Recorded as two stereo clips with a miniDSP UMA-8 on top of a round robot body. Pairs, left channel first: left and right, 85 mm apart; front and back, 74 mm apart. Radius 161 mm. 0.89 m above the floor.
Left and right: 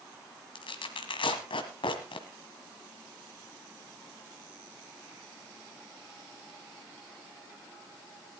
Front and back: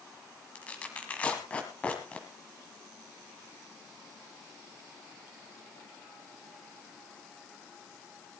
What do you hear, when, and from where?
0.6 s tearing paper: 75° left, 1.5 m